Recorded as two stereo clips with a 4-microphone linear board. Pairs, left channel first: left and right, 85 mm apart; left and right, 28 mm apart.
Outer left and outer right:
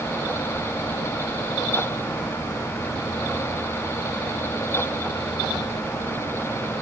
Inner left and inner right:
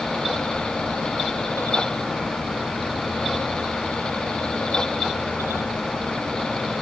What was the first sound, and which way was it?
Only background noise.